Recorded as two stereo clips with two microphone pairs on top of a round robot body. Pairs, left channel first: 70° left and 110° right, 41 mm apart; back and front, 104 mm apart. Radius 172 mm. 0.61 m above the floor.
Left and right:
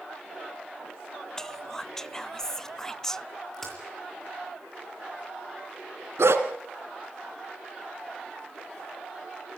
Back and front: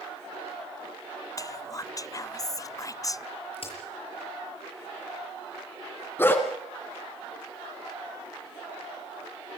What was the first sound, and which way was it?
Whispering, 160° left.